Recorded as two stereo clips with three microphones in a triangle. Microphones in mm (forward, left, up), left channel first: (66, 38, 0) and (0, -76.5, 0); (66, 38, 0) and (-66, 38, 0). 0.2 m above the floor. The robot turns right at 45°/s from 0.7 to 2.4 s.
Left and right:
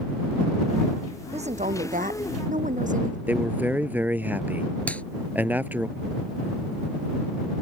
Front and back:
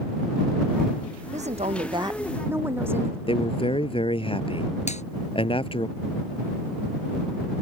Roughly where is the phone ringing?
No phone ringing in this recording.